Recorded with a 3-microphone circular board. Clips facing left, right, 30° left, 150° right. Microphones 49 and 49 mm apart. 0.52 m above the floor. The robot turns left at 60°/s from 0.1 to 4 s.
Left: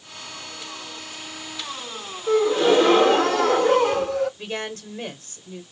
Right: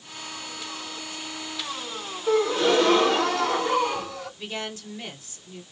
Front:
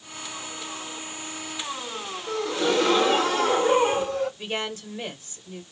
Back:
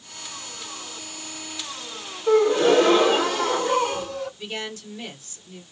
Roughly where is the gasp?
Behind.